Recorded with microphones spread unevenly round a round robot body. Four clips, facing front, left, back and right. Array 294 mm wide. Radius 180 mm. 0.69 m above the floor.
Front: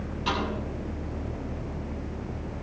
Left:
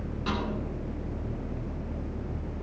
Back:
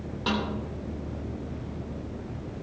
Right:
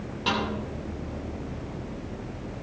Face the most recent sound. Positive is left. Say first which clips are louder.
# right 4 dB, even
turn(degrees=180)